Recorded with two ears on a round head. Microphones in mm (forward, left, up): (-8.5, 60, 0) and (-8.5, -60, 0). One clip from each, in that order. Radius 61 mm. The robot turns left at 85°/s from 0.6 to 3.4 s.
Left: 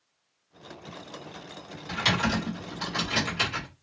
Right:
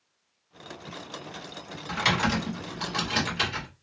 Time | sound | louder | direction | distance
1.9 | typing on a keyboard | right 1 dB | 20° right (ahead or behind) | 1.4 m